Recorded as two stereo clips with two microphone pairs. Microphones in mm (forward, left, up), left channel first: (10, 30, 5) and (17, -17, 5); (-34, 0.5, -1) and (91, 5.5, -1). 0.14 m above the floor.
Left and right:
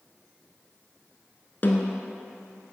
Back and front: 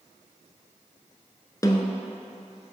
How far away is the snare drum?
About 0.7 m.